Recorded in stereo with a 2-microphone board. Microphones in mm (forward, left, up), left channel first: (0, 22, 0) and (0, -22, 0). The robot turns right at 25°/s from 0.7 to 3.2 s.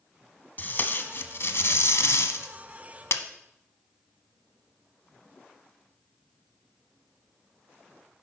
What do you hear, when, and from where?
0.6 s tape being pulled: 45° left (ahead or behind), 0.6 m; by 3.2 s 70° left (ahead or behind), 0.6 m